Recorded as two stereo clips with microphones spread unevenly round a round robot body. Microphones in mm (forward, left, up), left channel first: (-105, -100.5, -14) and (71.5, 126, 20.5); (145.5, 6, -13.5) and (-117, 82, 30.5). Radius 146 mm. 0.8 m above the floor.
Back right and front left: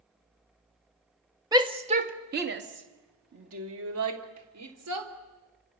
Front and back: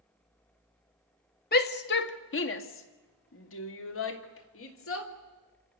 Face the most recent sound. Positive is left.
turn(degrees=15)